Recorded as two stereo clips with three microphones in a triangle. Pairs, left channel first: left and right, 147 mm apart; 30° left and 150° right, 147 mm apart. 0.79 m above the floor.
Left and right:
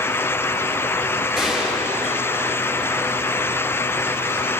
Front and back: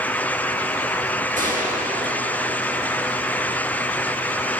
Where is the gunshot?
175° right, 6.5 m.